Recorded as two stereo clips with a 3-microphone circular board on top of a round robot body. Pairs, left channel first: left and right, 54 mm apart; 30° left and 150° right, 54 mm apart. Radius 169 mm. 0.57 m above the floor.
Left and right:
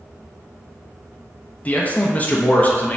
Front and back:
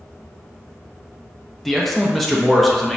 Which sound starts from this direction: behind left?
A man speaking, at 1.6 s.